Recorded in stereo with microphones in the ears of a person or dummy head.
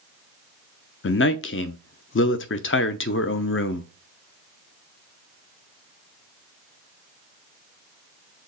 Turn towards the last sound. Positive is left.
turn(degrees=55)  # may be behind; listen again after turning